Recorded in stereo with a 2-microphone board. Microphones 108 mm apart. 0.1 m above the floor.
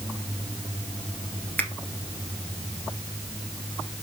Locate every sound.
1.6 s a finger snap: 15° left (ahead or behind), 2 m